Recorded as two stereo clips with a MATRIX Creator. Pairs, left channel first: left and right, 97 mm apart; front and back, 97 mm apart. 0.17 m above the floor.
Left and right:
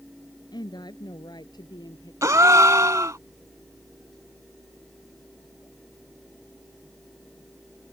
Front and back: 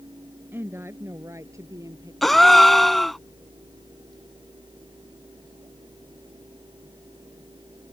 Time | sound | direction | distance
0.5 | a woman speaking | 115° left | ?
2.2 | a gasp | 85° right | ?